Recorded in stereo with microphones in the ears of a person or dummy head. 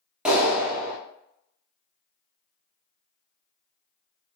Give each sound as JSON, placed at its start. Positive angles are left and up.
{"t": 0.2, "sound": "a clap", "side_deg": -5, "distance_m": 0.9}